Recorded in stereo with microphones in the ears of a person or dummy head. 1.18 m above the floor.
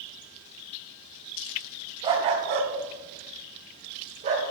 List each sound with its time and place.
2.0 s a dog barking: 25° right (ahead or behind), 0.8 m; by 4.5 s 35° right (ahead or behind), 1.7 m